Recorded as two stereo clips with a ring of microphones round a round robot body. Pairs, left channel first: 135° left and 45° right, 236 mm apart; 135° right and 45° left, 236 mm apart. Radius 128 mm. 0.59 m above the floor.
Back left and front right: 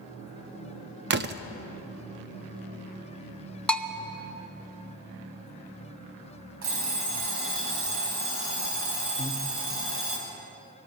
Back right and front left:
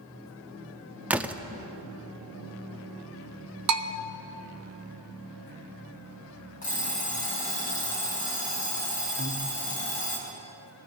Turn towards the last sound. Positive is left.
turn(degrees=-105)